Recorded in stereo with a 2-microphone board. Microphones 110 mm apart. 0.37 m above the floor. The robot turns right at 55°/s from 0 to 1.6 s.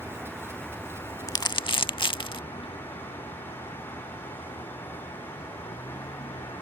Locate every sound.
0.0 s a vehicle: 30° right; by 6.6 s 60° left
1.3 s crumpling: 35° left (ahead or behind); by 2.4 s 50° left (ahead or behind)